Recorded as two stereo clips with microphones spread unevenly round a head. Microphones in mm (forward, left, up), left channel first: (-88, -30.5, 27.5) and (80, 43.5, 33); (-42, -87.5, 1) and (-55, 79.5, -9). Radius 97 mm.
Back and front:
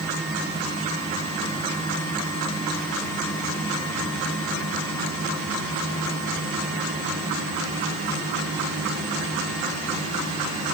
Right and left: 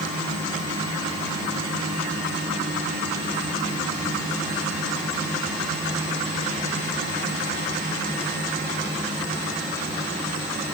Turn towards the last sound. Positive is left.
No sound to turn to.